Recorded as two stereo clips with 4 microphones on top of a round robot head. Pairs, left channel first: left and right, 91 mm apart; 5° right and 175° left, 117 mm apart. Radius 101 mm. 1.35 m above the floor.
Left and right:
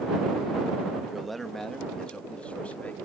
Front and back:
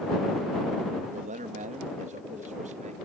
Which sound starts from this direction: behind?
A man speaking, at 1.1 s.